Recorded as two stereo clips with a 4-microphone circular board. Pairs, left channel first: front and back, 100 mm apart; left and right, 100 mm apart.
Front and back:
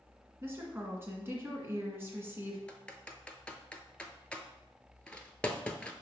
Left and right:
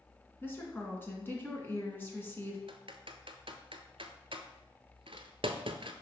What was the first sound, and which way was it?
A woman speaking, 140° left.